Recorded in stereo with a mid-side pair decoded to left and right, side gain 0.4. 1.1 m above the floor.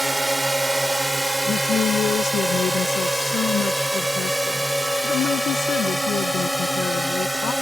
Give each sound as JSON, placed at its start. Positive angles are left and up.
{"t": 0.0, "sound": "a drone", "azimuth_deg": -5}
{"t": 1.4, "sound": "a woman speaking", "azimuth_deg": 70}